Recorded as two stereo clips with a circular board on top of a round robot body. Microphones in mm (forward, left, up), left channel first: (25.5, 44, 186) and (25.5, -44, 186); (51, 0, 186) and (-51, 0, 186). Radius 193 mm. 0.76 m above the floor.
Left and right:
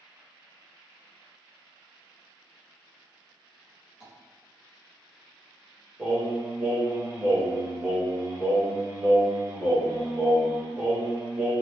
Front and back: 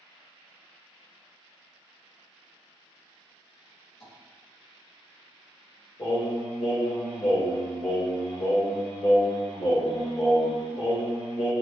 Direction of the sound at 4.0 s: 10° right.